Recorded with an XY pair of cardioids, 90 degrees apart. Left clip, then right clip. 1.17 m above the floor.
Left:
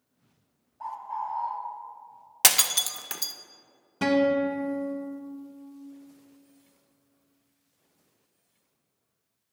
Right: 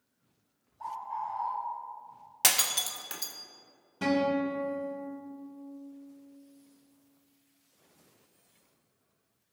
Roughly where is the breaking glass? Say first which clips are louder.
Left 4 dB; ahead left.